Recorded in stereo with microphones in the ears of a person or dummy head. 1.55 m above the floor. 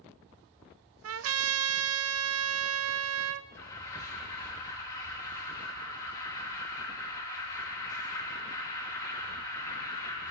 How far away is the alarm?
About 3.5 m.